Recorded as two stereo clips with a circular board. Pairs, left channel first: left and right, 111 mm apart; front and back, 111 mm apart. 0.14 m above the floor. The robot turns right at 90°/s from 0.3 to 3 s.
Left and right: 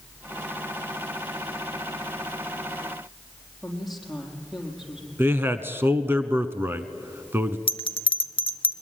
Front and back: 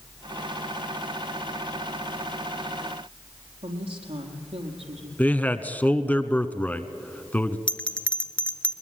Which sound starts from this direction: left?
A bell, at 7.7 s.